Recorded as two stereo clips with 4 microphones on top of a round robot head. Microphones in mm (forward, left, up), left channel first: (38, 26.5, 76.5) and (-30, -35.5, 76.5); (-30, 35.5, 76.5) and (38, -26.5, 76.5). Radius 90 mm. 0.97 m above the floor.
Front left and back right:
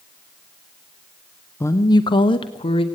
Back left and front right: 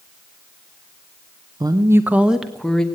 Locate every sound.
1.6 s a woman speaking: 15° right, 0.7 m; by 2.9 s 55° left, 1.2 m